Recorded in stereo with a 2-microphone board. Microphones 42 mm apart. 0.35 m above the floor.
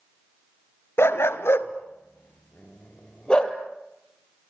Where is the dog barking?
80° left, 1.3 m; by 3.6 s 20° left (ahead or behind), 2.5 m.